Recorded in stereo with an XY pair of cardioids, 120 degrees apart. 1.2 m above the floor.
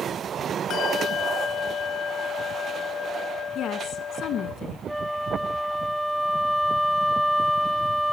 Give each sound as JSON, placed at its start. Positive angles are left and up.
{"t": 0.7, "sound": "a bell", "azimuth_deg": 55, "distance_m": 1.0}
{"t": 3.5, "sound": "a woman speaking", "azimuth_deg": 60, "distance_m": 1.4}
{"t": 4.9, "sound": "a flute", "azimuth_deg": -5, "distance_m": 0.6}